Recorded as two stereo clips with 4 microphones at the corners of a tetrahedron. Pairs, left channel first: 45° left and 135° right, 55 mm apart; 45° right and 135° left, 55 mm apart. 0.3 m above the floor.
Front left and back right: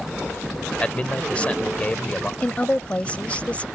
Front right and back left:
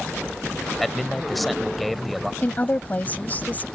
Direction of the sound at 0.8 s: 45° left.